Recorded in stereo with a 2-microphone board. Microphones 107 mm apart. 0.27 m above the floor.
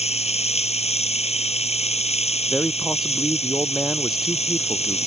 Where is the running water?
80° left.